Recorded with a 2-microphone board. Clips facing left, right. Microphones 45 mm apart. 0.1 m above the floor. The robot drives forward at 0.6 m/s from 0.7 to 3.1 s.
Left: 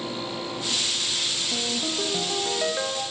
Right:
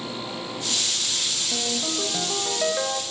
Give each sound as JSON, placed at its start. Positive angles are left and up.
{"t": 1.5, "sound": "a ringtone", "side_deg": 0, "distance_m": 1.5}